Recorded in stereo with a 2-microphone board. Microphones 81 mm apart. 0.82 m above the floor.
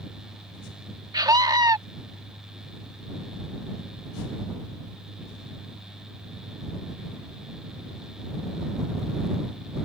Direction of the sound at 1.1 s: 50° right (ahead or behind).